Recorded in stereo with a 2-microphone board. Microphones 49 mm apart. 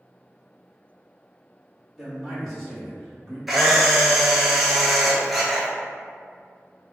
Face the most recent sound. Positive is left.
turn(degrees=-5)  # may be behind; listen again after turning